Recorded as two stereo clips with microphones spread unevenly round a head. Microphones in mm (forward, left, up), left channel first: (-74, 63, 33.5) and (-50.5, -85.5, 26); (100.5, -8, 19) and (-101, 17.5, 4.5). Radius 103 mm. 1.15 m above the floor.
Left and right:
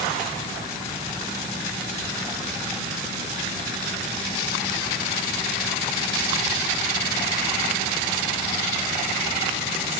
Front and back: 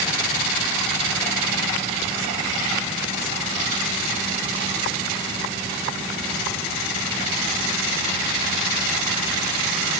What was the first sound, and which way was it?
Only background noise.